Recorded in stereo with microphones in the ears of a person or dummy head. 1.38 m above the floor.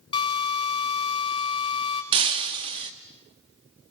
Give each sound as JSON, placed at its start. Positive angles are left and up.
{"t": 0.1, "sound": "a drill", "side_deg": 25, "distance_m": 4.5}
{"t": 2.1, "sound": "breaking glass", "side_deg": -30, "distance_m": 1.0}